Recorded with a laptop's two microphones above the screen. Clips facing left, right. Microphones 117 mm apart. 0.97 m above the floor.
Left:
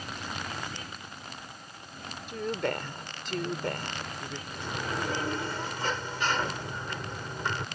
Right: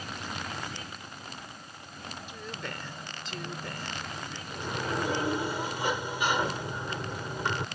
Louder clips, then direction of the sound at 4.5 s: Right 3 dB; 15° right (ahead or behind).